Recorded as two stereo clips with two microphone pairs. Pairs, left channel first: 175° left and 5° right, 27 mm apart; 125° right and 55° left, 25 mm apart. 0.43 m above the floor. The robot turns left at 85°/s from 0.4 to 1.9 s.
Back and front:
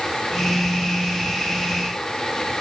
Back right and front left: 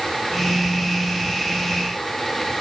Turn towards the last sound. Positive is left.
No sound to turn to.